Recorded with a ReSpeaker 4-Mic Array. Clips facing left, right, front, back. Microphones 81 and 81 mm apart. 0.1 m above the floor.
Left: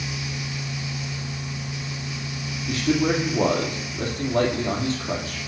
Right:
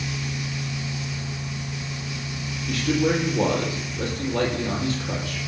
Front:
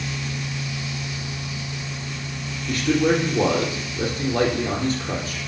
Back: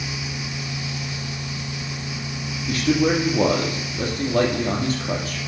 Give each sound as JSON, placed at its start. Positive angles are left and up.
{"t": 2.7, "sound": "a man speaking", "azimuth_deg": 145, "distance_m": 2.5}